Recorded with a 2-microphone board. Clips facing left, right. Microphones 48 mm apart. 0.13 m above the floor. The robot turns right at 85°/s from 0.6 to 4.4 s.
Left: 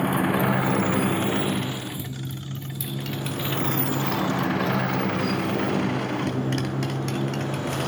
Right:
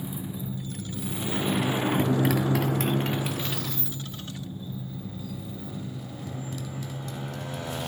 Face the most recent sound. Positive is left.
turn(degrees=55)  # may be behind; listen again after turning